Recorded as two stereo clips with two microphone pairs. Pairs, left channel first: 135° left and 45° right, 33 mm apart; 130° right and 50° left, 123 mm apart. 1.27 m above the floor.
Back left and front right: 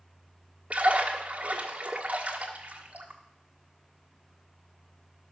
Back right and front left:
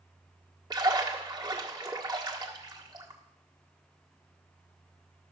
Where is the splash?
Straight ahead, 1.5 m.